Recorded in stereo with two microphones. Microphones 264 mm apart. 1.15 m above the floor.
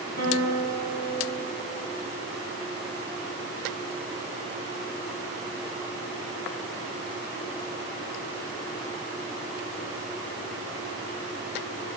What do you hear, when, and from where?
0.2 s a guitar: 85° right, 1.8 m